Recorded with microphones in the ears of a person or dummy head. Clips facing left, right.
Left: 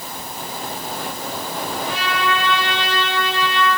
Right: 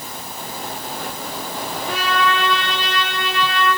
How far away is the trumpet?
About 10 m.